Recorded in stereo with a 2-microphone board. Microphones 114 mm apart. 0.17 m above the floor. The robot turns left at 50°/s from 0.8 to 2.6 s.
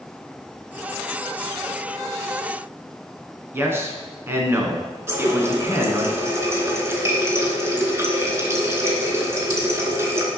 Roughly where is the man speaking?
Right.